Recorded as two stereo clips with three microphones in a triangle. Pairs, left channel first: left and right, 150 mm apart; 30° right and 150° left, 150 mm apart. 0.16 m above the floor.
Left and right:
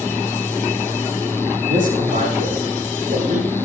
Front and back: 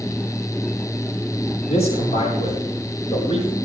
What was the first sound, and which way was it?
A man speaking, 70° right.